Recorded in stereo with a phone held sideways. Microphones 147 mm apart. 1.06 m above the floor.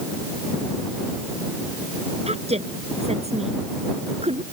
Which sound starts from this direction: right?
A woman speaking, at 2.3 s.